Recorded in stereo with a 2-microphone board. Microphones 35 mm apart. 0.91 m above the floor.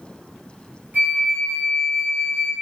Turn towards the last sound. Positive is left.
turn(degrees=-65)  # may be behind; listen again after turning